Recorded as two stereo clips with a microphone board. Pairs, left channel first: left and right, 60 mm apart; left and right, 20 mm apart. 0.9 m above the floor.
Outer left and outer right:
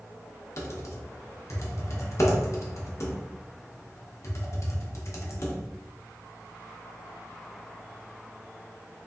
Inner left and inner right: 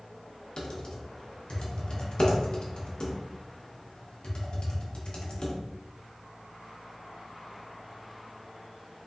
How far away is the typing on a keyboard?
About 0.6 m.